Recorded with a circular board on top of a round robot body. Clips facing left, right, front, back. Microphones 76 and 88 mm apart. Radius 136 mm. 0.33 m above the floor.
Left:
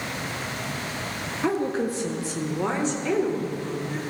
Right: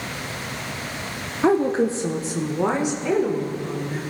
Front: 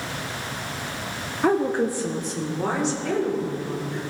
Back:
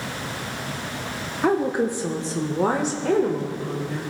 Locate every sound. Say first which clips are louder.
1.4 s a woman speaking: right 7 dB, even; 90° right, 1.0 m; by 4.0 s 175° right, 2.0 m